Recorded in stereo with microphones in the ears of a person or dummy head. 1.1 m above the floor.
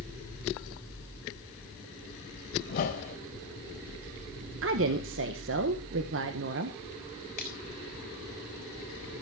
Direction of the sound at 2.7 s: 40° left (ahead or behind).